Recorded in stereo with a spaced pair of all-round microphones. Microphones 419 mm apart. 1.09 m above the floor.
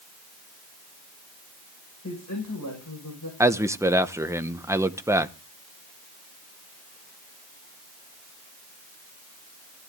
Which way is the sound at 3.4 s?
5° right (ahead or behind).